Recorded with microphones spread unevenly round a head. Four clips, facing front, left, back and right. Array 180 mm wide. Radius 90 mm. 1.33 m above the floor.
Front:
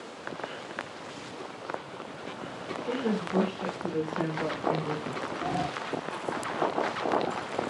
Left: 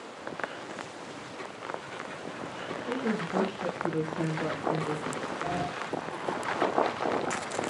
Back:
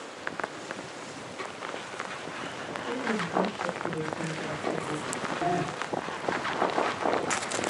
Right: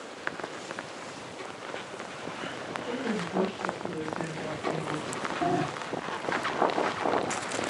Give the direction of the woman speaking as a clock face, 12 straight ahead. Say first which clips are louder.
Left 2 dB, front 1 dB; 12 o'clock.